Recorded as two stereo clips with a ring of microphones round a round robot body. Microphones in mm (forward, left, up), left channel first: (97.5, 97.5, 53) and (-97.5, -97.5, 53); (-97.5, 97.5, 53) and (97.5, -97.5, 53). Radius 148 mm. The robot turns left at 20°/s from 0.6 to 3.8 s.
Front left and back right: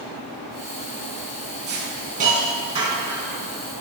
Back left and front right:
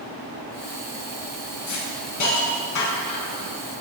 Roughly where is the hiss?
Behind.